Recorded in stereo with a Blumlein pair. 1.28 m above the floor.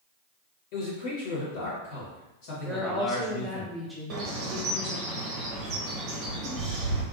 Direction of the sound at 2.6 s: Straight ahead.